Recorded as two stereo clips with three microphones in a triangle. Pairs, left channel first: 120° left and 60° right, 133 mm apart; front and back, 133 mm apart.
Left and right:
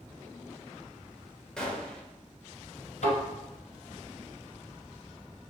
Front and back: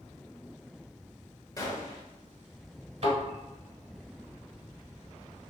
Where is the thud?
140° left, 1.5 m.